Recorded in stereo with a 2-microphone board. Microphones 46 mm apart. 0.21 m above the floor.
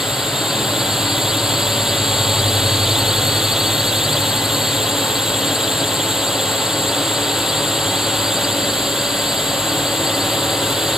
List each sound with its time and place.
0.0 s a drone: 10° right (ahead or behind)